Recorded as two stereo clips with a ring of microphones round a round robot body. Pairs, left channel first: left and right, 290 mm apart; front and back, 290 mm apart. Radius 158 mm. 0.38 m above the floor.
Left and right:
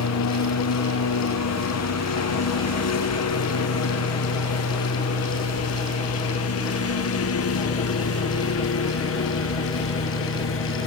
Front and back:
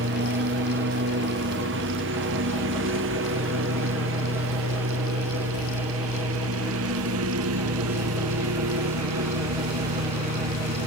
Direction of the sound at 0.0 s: 120° left.